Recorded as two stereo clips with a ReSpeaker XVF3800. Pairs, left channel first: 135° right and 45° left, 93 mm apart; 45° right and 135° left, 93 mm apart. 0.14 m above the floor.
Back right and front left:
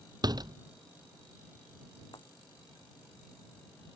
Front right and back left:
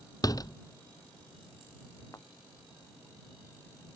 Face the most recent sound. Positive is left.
turn(degrees=-100)